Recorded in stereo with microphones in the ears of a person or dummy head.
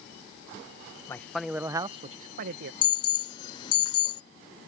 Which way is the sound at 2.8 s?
25° left (ahead or behind).